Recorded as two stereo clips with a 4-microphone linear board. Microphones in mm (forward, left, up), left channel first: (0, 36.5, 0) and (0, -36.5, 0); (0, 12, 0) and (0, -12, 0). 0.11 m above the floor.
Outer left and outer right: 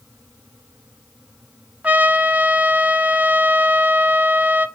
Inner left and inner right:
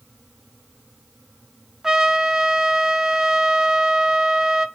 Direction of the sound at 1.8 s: 20° right (ahead or behind).